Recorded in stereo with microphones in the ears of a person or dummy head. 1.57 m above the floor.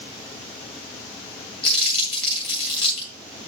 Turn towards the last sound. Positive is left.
turn(degrees=5)  # may be behind; listen again after turning